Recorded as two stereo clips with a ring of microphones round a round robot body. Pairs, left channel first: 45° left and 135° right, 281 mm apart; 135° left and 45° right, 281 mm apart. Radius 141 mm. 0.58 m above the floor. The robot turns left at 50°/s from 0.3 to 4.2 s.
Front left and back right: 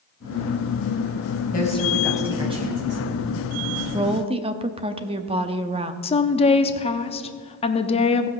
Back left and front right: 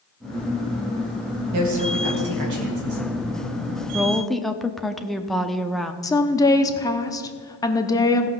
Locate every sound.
1.5 s a woman speaking: 15° right, 3 m; by 3.0 s 90° right, 3 m
3.9 s a woman speaking: 125° right, 0.7 m; by 5.9 s 135° right, 0.7 m
6.0 s a woman speaking: 75° left, 0.8 m